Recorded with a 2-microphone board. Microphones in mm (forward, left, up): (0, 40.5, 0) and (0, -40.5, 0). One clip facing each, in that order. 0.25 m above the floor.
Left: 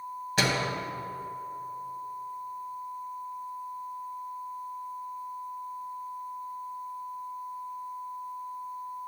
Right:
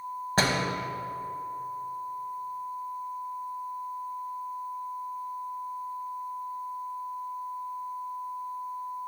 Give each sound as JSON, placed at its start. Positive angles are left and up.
{"t": 0.4, "sound": "a door slam", "side_deg": -35, "distance_m": 0.9}